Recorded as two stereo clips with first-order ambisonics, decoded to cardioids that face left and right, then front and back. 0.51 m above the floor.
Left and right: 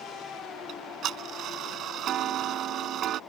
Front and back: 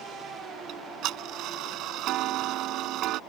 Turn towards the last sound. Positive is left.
turn(degrees=-140)